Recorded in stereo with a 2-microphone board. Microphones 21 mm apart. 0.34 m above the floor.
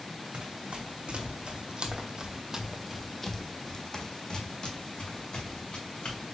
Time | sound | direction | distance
0.3 | running footsteps | 75° right (ahead or behind) | 1.6 m